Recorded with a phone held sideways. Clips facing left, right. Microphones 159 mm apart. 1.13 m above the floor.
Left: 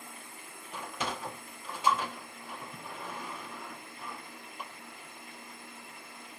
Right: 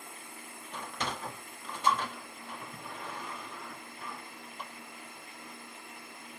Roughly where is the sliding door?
Centre.